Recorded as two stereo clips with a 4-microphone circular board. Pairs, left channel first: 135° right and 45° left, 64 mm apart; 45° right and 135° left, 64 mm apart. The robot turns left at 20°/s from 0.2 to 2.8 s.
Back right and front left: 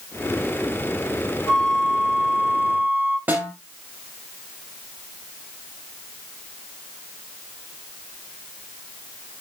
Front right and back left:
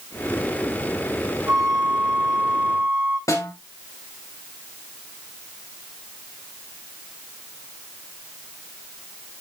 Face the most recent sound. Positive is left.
turn(degrees=-15)